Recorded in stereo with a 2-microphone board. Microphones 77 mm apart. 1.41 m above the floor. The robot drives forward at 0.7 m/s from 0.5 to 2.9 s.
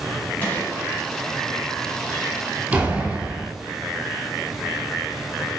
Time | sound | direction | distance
0.4 | a gunshot | 20° left (ahead or behind) | 3.5 m
2.7 | a door slam | 15° right (ahead or behind) | 2 m